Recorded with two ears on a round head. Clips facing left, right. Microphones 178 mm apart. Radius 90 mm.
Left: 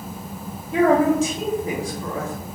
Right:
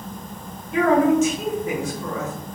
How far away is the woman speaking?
About 1.0 m.